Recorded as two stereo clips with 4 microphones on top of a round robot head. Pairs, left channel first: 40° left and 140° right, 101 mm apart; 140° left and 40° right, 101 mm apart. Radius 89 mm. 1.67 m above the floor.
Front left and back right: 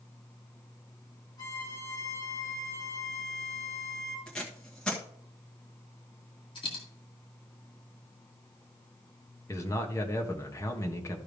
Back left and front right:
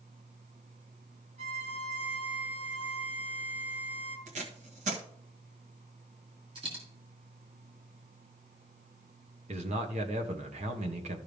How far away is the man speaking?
About 1.4 m.